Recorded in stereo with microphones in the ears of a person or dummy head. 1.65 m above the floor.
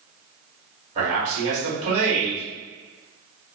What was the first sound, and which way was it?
A man speaking, 40° right (ahead or behind).